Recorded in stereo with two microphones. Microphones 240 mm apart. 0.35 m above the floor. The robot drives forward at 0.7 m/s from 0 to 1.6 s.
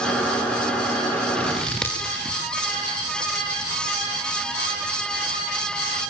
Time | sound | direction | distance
1.4 | scissors | 5° left (ahead or behind) | 6 m